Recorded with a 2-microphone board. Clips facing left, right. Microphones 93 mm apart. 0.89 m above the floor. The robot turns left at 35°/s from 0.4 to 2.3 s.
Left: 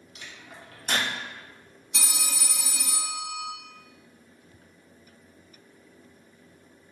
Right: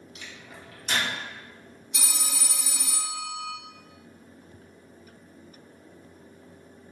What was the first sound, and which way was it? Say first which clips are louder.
A microwave: left 1 dB; 35° left (ahead or behind).